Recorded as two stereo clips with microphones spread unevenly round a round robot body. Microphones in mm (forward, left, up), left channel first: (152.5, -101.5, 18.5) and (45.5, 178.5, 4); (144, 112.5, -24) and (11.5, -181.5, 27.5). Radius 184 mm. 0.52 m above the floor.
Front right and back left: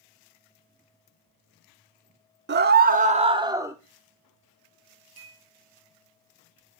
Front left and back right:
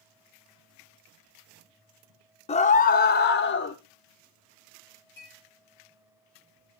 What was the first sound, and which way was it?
A scream, 110° left.